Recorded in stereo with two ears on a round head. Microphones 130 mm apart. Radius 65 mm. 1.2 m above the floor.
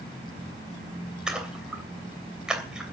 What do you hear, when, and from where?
1.3 s a splash: 5° right (ahead or behind), 3 m